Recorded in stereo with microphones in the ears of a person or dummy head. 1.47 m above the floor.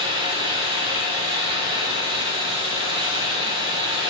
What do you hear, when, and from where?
0.0 s a fan: 25° right (ahead or behind), 3 m